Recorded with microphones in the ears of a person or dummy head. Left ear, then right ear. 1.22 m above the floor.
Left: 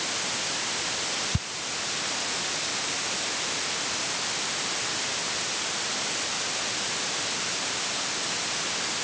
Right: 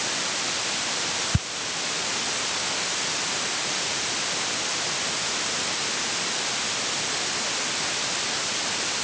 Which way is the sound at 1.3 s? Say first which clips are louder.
Right 3 dB; 25° right (ahead or behind).